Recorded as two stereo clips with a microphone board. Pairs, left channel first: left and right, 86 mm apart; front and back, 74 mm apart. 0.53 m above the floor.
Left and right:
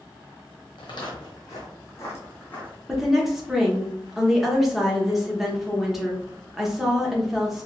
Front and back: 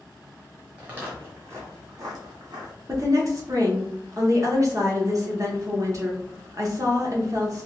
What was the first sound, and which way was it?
Footsteps, 110° left.